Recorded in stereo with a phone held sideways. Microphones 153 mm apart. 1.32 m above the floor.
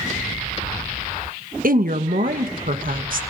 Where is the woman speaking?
70° right (ahead or behind), 1.3 m.